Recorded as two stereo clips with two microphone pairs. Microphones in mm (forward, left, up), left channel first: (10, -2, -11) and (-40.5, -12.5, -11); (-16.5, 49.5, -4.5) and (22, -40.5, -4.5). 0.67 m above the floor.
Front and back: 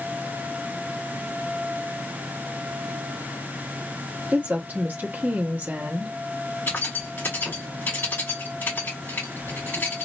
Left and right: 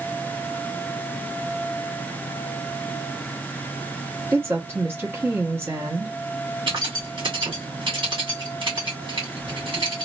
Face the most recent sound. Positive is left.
turn(degrees=-35)